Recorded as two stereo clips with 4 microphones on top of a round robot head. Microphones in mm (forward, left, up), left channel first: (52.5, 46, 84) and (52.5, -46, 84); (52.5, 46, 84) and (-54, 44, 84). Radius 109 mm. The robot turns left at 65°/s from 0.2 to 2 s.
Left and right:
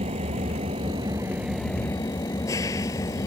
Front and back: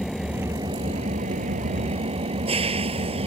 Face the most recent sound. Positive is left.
turn(degrees=155)